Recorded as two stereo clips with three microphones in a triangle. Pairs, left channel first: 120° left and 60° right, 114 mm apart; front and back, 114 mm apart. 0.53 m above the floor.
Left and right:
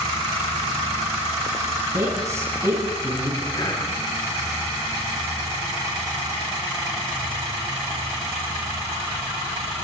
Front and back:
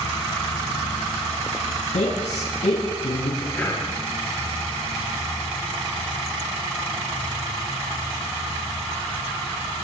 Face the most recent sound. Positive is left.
turn(degrees=70)